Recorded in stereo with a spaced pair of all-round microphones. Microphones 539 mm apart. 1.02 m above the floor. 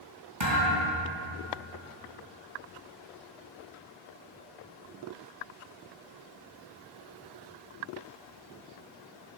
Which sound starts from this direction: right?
A thud, at 0.4 s.